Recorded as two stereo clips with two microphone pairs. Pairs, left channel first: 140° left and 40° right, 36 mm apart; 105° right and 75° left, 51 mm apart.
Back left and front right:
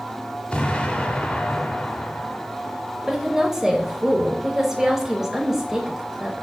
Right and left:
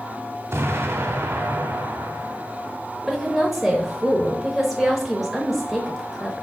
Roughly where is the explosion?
Left.